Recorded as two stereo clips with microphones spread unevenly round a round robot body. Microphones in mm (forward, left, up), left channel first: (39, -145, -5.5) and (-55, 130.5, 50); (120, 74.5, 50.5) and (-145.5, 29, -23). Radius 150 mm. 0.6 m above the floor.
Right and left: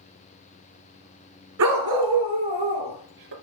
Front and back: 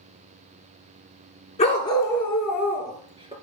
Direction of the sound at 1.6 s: 75° left.